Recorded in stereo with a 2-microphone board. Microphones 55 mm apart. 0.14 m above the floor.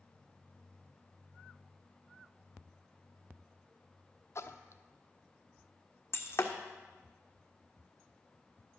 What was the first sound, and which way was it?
A splash, 60° left (ahead or behind).